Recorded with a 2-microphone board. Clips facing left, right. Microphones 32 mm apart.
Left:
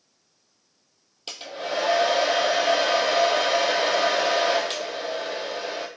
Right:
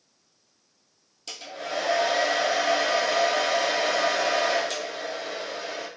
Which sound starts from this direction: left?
A hair dryer, at 1.3 s.